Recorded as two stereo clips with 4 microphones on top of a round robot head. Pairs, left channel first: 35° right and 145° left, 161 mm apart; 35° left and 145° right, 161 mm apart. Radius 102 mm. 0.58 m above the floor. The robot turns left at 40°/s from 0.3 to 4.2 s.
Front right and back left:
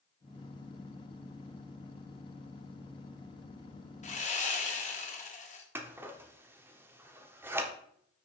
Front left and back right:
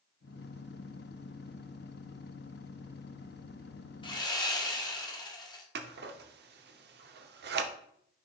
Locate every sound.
4.0 s sawing: 15° right, 1.4 m; by 5.7 s 20° right, 1.4 m
5.8 s scissors: 135° right, 0.7 m